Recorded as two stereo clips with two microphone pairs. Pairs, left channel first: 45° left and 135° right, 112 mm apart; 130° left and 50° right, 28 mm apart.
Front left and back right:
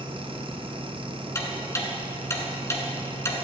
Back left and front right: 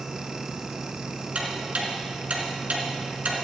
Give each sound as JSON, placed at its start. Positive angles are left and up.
{"t": 1.4, "sound": "ticking", "azimuth_deg": -15, "distance_m": 1.8}